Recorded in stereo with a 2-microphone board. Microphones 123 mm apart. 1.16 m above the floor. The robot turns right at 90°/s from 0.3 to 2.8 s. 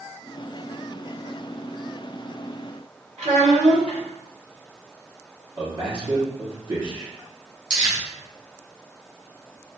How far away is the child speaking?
About 1.9 m.